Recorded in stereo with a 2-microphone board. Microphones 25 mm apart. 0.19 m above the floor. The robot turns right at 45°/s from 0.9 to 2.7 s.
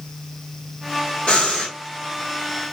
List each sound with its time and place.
1.3 s breathing: 55° left (ahead or behind), 2.5 m; by 1.7 s 35° left (ahead or behind), 2.5 m